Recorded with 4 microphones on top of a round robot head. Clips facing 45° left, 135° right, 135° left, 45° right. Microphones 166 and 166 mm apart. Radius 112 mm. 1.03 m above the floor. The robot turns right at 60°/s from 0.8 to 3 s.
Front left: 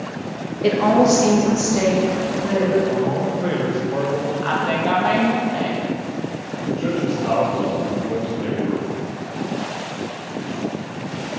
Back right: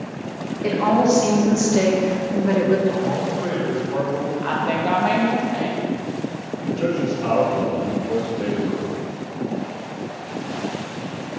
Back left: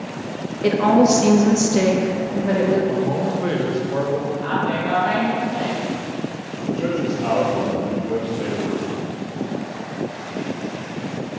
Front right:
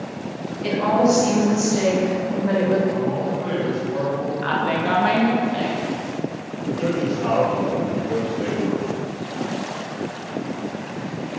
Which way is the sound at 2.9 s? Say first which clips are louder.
Front left 2 dB, back left 2 dB; 105° left.